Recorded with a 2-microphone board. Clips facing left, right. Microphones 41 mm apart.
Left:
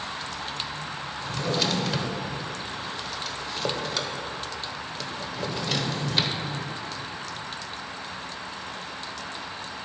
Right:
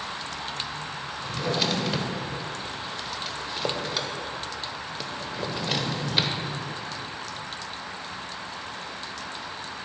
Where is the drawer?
5° right (ahead or behind), 0.8 m.